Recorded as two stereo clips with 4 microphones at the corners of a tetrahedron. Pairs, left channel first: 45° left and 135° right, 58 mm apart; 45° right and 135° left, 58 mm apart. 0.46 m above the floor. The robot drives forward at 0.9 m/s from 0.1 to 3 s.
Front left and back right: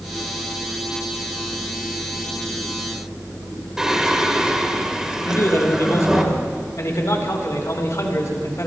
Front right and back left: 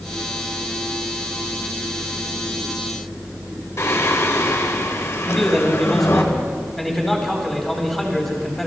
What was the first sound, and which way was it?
Singing, 55° right.